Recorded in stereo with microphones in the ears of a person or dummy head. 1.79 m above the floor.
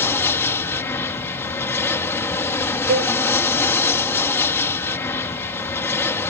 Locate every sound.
0.0 s an aircraft: 15° left (ahead or behind)
2.9 s a cowbell: 45° right (ahead or behind)